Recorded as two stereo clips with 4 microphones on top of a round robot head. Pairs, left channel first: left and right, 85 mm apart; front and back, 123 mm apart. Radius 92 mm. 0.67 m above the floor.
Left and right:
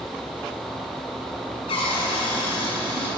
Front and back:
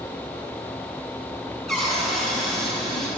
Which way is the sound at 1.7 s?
85° left.